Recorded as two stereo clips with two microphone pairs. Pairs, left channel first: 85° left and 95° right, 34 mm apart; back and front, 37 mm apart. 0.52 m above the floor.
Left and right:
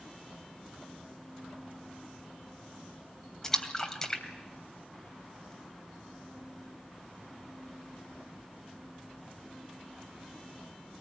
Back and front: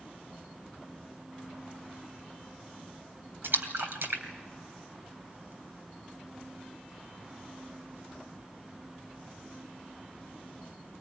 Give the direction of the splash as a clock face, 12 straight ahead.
12 o'clock.